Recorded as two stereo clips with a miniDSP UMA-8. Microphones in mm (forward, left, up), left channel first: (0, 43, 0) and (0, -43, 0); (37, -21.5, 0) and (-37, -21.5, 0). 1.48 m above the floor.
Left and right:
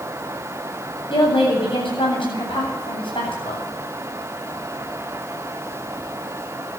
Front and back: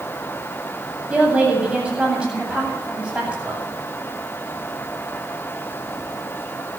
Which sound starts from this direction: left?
A woman speaking, at 1.1 s.